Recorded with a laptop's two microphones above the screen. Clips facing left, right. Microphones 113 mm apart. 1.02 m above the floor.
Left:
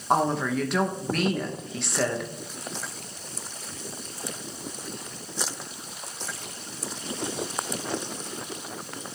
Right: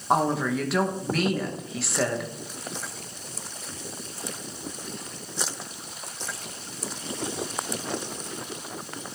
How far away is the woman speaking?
About 1.1 m.